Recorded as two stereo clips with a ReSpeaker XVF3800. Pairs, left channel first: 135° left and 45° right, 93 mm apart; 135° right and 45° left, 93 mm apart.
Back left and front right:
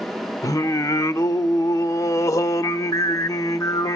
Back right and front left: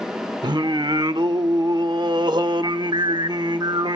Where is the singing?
80° left, 0.5 m.